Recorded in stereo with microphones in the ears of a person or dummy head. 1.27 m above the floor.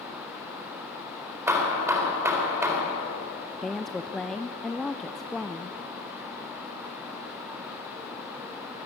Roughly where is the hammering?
Centre.